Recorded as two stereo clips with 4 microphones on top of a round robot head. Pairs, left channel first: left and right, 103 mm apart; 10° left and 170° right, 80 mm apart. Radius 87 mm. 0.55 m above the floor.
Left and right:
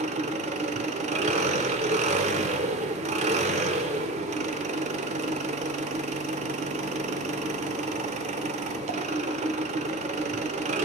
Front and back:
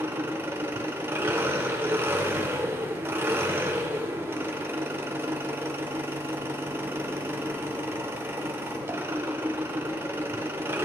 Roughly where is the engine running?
Right.